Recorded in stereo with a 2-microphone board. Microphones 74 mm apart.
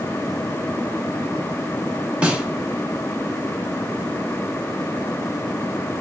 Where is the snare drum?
15° right (ahead or behind), 0.9 m.